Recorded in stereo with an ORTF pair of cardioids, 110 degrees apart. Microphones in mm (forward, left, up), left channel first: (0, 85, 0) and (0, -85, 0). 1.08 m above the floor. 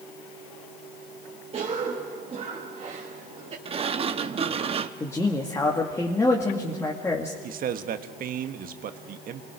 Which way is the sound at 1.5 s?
40° right.